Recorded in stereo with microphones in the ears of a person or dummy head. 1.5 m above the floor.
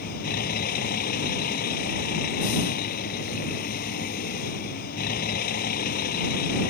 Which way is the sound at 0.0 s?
50° left (ahead or behind).